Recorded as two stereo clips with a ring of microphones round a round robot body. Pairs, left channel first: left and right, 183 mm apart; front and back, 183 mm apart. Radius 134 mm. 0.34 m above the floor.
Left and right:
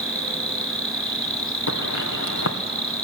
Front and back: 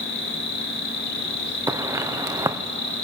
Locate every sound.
0.0 s an insect: 20° right, 3 m
1.7 s footsteps: 105° left, 1.8 m